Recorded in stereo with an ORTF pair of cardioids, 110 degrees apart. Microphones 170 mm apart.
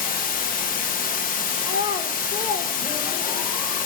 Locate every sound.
0.0 s running water: 60° left, 1.3 m
1.6 s a child speaking: 60° left, 1.3 m